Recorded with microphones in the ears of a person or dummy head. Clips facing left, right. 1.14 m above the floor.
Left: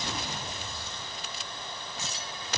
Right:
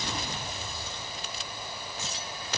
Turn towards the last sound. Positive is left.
No sound to turn to.